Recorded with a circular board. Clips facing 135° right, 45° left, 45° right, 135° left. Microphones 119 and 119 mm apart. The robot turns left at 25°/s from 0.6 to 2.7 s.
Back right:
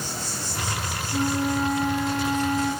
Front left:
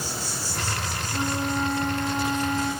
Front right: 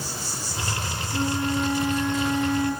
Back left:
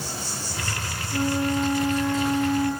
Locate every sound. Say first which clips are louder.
0.0 s an insect: even, back left 1 dB; 130° left, 4.5 m; by 2.8 s 75° left, 4.5 m
1.1 s a flute: back right 3 dB, back left 2 dB; 120° left, 5.5 m; by 2.7 s 80° left, 5.5 m